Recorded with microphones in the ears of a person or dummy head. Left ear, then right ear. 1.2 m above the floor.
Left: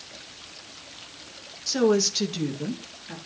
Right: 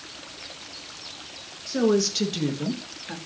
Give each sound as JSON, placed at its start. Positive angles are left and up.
{"t": 1.7, "sound": "a woman speaking", "side_deg": 30, "distance_m": 1.7}